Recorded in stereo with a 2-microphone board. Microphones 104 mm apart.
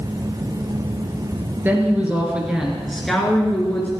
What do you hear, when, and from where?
1.6 s a woman speaking: 20° right (ahead or behind), 3.5 m; by 3.9 s 20° left (ahead or behind), 3 m